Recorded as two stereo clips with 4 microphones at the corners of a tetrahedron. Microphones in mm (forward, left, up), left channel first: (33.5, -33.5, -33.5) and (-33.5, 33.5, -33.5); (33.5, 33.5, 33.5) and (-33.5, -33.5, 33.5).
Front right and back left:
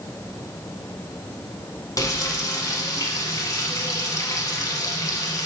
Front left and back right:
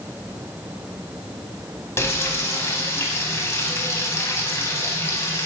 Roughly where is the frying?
Ahead.